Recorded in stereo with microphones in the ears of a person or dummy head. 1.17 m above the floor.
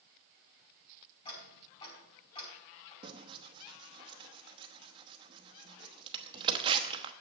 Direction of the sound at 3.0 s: 30° right (ahead or behind).